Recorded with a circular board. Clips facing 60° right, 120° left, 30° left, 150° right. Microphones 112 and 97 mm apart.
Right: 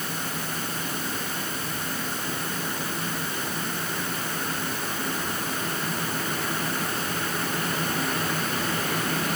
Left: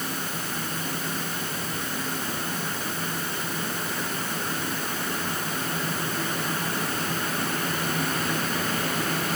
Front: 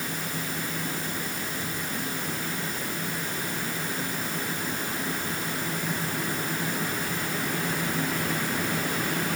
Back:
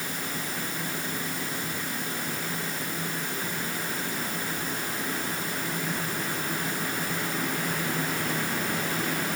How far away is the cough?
No cough in this recording.